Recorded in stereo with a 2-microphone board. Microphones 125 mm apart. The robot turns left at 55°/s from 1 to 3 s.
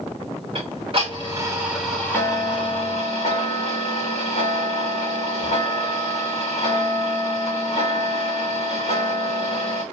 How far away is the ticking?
About 3 m.